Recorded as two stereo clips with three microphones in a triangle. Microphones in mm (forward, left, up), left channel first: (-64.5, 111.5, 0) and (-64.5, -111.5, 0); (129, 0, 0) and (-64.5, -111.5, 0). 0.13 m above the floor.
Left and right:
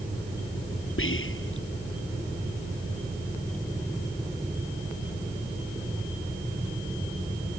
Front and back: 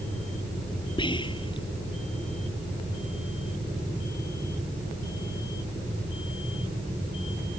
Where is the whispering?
95° left.